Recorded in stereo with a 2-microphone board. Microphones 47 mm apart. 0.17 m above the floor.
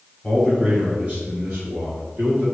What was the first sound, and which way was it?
A man speaking, 5° left (ahead or behind).